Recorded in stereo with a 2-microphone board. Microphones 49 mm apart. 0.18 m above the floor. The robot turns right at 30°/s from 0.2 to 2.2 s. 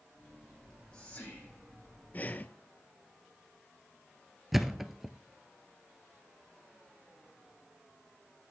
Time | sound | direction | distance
0.6 | whispering | 10° left (ahead or behind) | 8.5 m
2.1 | breathing | 35° left (ahead or behind) | 0.7 m
4.5 | a thud | 5° right (ahead or behind) | 0.8 m